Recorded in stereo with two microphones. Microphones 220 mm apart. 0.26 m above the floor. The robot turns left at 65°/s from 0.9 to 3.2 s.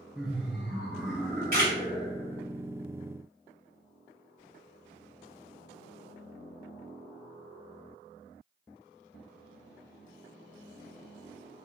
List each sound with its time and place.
0.1 s laughter: 5° right (ahead or behind), 0.9 m; by 2.5 s 25° left (ahead or behind), 0.9 m
1.5 s a camera shutter: 45° right (ahead or behind), 1.7 m; by 1.7 s 40° right (ahead or behind), 1.7 m